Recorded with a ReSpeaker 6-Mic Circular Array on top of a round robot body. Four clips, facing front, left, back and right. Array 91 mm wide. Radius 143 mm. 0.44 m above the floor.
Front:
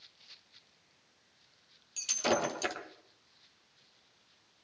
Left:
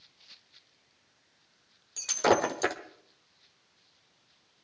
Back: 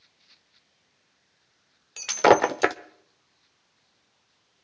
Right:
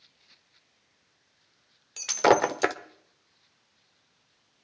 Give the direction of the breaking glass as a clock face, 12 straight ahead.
5 o'clock.